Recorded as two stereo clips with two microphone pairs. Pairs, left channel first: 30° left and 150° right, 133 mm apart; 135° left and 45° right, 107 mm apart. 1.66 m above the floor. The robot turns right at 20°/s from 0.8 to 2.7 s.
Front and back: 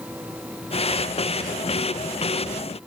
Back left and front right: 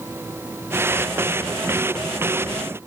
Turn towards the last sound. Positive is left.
No sound to turn to.